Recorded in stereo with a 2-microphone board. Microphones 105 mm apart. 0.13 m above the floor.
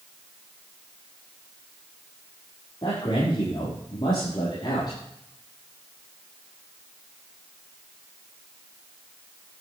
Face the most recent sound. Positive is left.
turn(degrees=45)  # may be behind; listen again after turning